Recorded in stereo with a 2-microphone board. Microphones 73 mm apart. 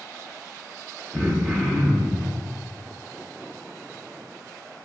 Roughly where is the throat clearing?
Centre.